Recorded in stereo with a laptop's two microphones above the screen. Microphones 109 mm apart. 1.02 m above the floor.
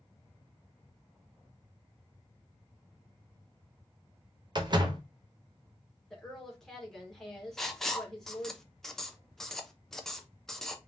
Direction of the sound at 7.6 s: 5° left (ahead or behind).